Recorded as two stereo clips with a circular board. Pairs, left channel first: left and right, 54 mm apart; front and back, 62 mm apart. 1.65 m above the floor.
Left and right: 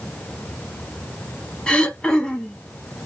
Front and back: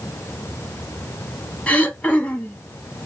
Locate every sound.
1.7 s throat clearing: 40° left, 1.2 m